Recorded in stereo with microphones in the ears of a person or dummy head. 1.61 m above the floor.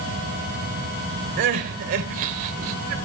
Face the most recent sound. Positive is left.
turn(degrees=-40)  # may be behind; listen again after turning